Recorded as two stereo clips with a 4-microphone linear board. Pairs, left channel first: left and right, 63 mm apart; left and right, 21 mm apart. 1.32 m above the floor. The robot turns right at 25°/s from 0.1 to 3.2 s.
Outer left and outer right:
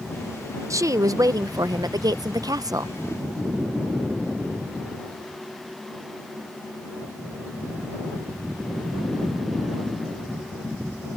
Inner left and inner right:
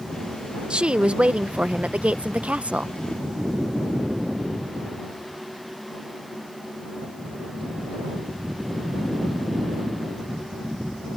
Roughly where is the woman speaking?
Behind right.